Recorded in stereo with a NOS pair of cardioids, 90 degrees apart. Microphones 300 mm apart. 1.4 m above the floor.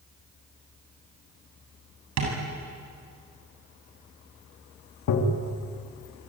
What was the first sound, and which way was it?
Tapping, 65° right.